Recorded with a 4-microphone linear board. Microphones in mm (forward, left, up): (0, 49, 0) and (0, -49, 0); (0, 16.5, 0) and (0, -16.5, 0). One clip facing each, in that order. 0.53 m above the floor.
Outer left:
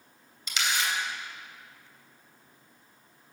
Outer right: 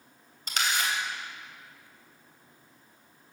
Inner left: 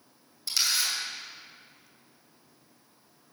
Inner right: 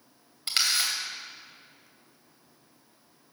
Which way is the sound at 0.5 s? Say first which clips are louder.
Outer right 1 dB, inner right 1 dB; 50° right (ahead or behind).